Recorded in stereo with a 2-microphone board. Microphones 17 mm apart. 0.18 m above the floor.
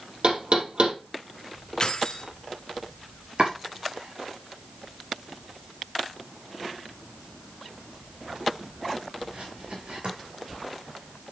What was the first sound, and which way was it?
Knocking, 65° right (ahead or behind).